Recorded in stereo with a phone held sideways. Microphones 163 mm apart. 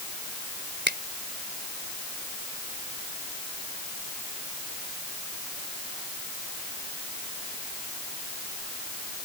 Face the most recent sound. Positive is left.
turn(degrees=-85)